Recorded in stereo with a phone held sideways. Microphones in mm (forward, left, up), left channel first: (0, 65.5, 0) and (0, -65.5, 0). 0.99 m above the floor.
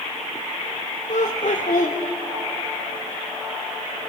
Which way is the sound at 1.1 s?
65° left (ahead or behind).